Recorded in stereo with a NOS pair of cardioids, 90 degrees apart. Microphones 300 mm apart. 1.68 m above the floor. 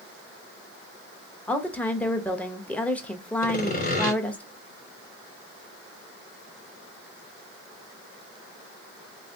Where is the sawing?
30° left, 1.4 m.